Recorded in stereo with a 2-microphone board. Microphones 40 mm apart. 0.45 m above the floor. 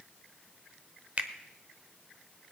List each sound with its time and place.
1.2 s a finger snap: 40° right (ahead or behind), 1.0 m